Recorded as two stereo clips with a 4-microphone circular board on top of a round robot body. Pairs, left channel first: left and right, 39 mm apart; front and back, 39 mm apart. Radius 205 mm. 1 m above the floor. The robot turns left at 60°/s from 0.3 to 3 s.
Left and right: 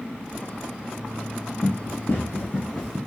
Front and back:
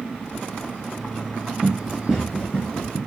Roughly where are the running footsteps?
Behind left.